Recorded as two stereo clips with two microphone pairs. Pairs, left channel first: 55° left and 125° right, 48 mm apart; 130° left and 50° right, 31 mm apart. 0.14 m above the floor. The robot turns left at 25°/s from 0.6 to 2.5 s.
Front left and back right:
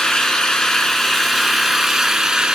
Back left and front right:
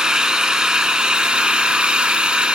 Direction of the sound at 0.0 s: 10° right.